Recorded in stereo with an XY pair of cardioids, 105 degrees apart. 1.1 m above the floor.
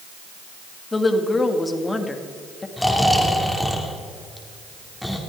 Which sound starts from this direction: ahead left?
A woman speaking, at 0.9 s.